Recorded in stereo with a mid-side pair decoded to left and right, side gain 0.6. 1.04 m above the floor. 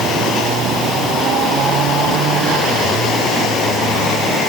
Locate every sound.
Only background noise.